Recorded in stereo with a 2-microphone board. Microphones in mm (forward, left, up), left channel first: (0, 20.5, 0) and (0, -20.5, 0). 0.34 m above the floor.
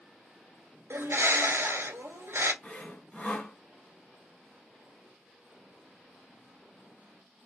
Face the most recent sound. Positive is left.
turn(degrees=20)  # may be behind; listen again after turning